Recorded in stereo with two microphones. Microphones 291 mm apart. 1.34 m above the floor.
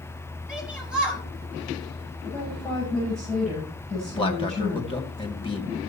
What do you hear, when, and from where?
0.5 s a shout: 5° right (ahead or behind), 8 m
2.2 s a woman speaking: centre (ahead or behind), 8.5 m
4.1 s a man speaking: 15° left (ahead or behind), 2 m